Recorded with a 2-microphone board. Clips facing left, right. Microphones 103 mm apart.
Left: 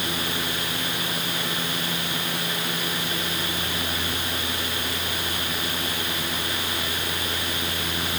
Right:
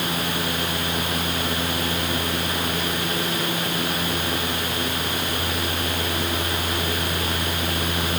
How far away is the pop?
No pop in this recording.